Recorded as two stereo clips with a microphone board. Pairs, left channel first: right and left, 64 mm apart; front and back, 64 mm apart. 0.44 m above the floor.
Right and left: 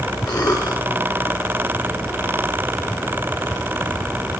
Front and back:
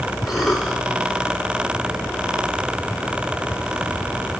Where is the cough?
95° right, 6 m.